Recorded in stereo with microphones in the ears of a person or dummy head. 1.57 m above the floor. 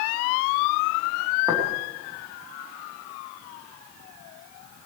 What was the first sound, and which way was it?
Tapping, 20° right (ahead or behind).